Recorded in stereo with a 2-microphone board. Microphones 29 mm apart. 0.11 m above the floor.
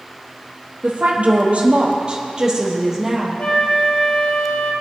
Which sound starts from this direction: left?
A flute, at 3.4 s.